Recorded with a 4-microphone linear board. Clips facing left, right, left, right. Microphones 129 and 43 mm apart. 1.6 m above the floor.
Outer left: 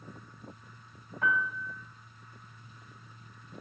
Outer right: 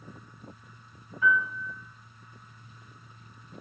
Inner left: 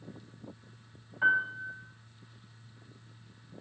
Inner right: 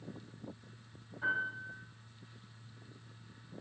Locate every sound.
1.2 s a piano: 65° left (ahead or behind), 5 m